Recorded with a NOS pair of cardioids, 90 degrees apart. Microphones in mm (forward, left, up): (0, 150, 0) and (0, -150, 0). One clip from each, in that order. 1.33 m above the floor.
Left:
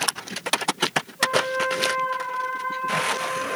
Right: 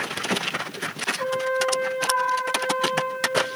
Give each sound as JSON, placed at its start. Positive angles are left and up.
{"t": 1.2, "sound": "a trumpet", "azimuth_deg": -45, "distance_m": 2.5}